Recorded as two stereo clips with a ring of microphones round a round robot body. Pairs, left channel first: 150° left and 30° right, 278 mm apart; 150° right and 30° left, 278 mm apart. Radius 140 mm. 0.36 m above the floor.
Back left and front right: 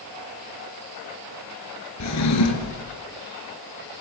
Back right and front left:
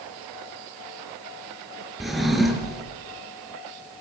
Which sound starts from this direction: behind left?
A drawer, at 2.0 s.